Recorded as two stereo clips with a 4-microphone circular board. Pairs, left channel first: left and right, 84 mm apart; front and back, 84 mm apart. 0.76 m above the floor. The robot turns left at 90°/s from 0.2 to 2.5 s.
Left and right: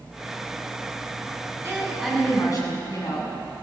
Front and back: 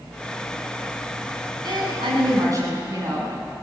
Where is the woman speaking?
150° right, 7.5 m; by 3.3 s 135° left, 7.5 m.